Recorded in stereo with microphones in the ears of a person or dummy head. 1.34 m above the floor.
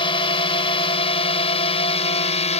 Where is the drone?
25° left (ahead or behind); by 2.6 s 30° left (ahead or behind).